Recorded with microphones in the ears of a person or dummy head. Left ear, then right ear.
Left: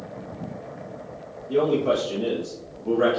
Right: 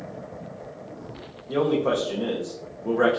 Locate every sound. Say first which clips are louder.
1.5 s a man speaking: left 1 dB; 40° right (ahead or behind), 0.7 m